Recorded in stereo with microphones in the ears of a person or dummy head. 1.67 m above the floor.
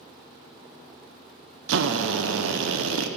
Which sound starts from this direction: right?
A drill, at 1.7 s.